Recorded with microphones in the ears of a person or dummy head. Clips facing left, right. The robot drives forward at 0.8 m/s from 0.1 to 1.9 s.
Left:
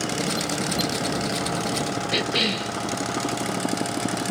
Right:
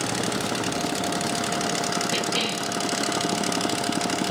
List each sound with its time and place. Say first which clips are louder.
2.1 s a cough: left 2 dB; 25° left (ahead or behind), 2.5 m